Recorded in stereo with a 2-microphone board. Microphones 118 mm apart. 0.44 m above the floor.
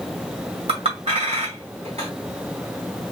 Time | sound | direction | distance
0.7 | a clink | 60° right (ahead or behind) | 1.8 m